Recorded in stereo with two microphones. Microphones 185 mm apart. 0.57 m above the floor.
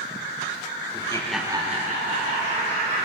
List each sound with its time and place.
0.9 s laughter: 25° left (ahead or behind), 0.9 m; by 3.1 s 45° right (ahead or behind), 2.5 m